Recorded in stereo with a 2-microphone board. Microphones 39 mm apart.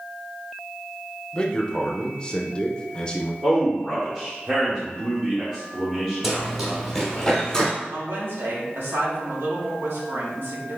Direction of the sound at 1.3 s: 25° left (ahead or behind).